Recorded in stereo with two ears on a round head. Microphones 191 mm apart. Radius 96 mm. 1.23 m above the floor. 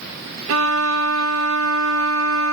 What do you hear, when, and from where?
0.5 s a violin: 70° right (ahead or behind)